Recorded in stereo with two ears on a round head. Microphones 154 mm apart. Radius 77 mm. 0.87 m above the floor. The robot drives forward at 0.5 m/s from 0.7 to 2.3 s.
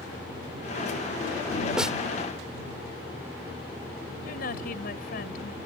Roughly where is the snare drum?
Centre.